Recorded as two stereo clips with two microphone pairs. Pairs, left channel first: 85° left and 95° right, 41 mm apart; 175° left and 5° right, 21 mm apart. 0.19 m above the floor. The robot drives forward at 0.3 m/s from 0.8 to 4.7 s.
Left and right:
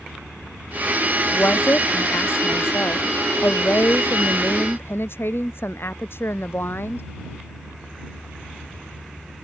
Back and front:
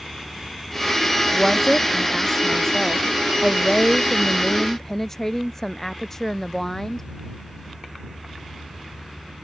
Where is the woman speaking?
105° left; by 7.1 s 110° left.